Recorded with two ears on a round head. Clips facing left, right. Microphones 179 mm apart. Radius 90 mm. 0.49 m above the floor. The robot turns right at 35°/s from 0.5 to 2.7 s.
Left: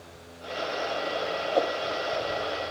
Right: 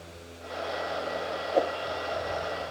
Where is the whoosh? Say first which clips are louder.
Even; centre (ahead or behind); by 1.8 s 10° right (ahead or behind).